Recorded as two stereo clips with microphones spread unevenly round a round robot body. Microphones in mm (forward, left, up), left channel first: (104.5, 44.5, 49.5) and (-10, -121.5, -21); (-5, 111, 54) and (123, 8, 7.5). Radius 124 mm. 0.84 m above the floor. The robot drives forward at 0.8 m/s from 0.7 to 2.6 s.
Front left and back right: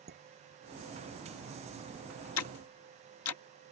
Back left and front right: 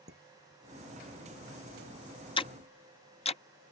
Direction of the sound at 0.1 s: 85° right.